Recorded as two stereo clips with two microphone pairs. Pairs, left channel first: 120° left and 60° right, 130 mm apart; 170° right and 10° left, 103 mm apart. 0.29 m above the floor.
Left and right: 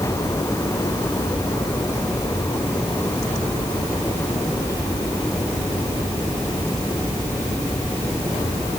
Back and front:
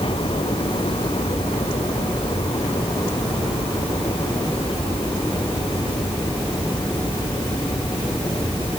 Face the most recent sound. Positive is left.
No sound to turn to.